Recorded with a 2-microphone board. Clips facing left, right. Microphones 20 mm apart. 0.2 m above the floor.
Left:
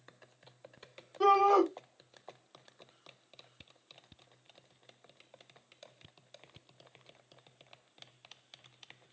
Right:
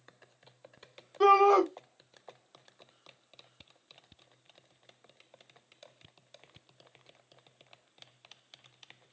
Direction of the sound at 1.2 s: 30° right (ahead or behind).